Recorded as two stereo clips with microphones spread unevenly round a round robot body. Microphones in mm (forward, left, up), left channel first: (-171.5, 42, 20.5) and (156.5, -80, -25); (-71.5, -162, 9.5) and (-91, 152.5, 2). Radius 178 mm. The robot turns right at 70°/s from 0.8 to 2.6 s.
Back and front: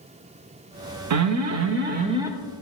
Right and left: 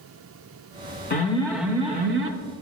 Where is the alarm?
30° right, 0.5 m; by 2.3 s 60° left, 0.5 m.